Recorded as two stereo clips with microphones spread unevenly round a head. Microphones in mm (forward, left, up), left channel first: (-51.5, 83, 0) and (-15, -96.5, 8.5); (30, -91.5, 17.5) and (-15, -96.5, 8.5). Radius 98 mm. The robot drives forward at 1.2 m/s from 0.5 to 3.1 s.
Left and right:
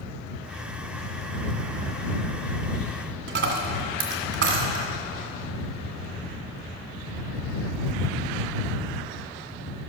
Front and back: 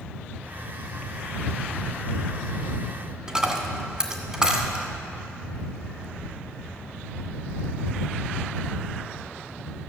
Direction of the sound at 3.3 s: 95° right.